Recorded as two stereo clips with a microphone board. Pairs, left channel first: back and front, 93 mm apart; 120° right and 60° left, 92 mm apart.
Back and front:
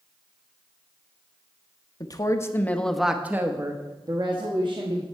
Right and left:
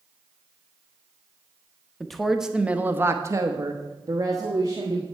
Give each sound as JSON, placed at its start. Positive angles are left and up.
{"t": 2.0, "sound": "a woman speaking", "azimuth_deg": 155, "distance_m": 1.0}